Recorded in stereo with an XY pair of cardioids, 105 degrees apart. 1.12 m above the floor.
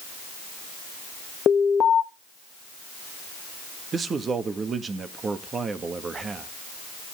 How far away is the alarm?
About 0.9 m.